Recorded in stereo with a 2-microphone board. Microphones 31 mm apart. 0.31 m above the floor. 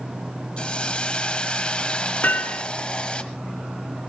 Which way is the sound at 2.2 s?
70° left (ahead or behind).